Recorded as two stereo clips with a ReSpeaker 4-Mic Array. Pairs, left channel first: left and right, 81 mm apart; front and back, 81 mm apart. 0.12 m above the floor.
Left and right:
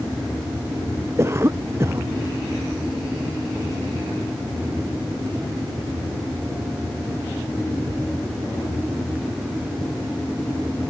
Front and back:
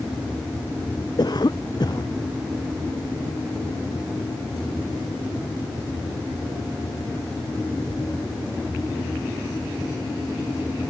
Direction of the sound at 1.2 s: 35° right.